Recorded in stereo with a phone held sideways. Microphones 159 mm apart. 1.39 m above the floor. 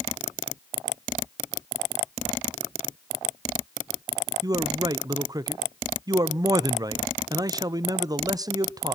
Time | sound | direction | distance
4.4 | a man speaking | 25° right (ahead or behind) | 0.7 m